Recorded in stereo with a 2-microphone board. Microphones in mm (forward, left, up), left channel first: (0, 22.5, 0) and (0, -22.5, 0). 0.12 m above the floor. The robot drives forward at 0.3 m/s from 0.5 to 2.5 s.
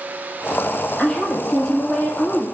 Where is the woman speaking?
20° left (ahead or behind), 1.3 m; by 2.5 s 25° left (ahead or behind), 1.1 m.